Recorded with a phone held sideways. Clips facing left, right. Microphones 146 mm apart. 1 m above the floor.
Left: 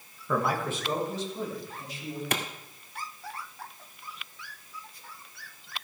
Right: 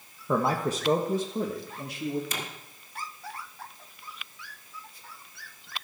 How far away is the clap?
About 1.7 m.